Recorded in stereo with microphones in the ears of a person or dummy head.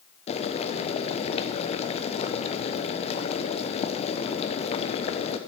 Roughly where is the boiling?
Left.